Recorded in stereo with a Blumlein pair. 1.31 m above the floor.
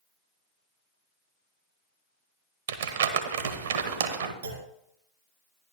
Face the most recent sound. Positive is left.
turn(degrees=-70)